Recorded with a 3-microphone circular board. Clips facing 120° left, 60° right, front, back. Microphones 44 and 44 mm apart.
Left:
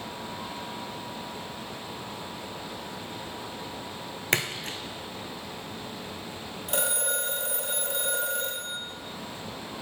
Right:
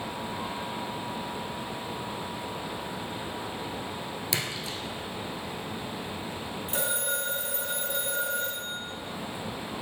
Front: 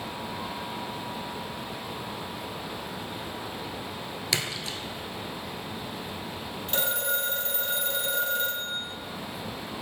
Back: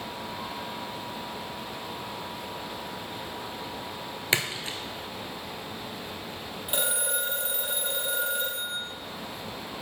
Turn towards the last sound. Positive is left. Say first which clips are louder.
# left 2 dB, front 1 dB
turn(degrees=105)